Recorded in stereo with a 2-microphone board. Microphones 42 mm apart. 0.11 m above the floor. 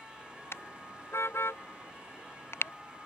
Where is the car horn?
70° left (ahead or behind).